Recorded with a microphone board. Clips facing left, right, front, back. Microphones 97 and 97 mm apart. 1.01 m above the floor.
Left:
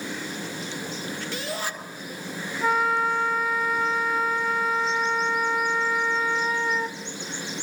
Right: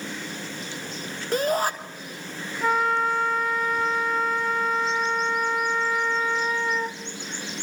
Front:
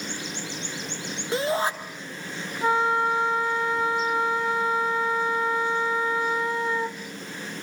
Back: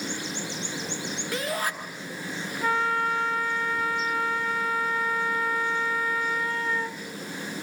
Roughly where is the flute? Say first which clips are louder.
Even, front 3 dB; ahead.